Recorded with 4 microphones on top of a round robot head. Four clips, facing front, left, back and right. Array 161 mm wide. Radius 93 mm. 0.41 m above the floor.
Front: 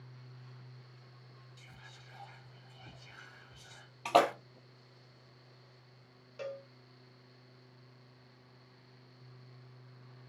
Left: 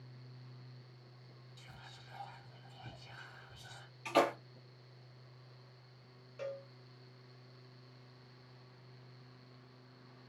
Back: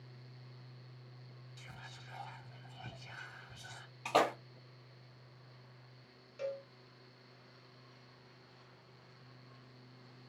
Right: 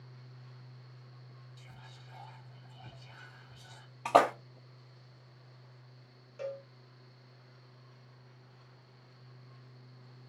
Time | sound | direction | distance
1.6 | whispering | 175° left | 1.3 m
4.0 | a splash | 75° right | 0.9 m
6.4 | a cowbell | 30° right | 1.1 m